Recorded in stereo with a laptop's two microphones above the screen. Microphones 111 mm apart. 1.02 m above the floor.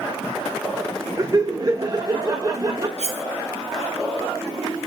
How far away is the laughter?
About 0.8 m.